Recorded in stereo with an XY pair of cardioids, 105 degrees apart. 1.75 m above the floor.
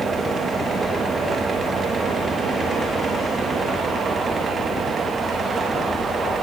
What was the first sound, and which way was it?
A fan, 35° right.